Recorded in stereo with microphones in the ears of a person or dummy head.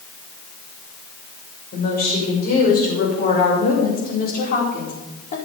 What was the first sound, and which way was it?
A woman speaking, 55° left (ahead or behind).